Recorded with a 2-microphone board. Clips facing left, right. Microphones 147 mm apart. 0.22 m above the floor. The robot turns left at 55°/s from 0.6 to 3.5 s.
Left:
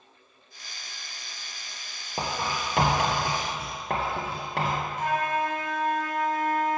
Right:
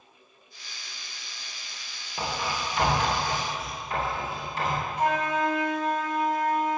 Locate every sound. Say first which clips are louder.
2.2 s writing: left 1 dB; 35° left (ahead or behind), 3.5 m; by 4.9 s 65° left (ahead or behind), 3.5 m
5.0 s a flute: right 2 dB; 70° right (ahead or behind), 4 m